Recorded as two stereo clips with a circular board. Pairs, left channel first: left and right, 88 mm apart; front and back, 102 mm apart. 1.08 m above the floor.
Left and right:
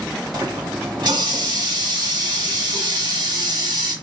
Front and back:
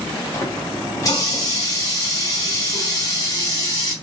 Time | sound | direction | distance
0.3 | a running tap | 55° right | 1.2 m